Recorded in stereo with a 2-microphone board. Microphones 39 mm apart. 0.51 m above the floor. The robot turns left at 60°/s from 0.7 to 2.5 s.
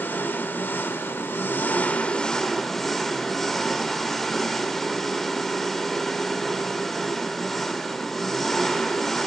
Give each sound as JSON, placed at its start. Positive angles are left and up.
{"t": 0.0, "sound": "an engine running", "azimuth_deg": 115, "distance_m": 0.9}